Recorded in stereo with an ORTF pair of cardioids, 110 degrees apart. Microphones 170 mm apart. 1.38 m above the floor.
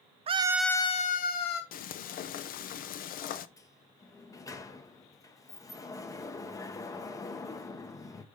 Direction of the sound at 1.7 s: 55° left.